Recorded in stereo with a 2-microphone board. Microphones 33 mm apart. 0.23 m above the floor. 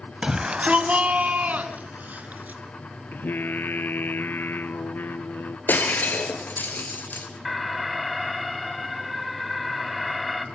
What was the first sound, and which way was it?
A shout, 20° right (ahead or behind).